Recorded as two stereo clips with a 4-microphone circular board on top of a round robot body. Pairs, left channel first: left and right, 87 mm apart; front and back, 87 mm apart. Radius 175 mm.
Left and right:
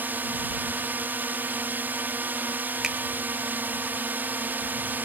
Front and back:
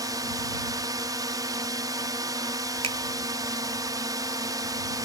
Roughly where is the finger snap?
Behind.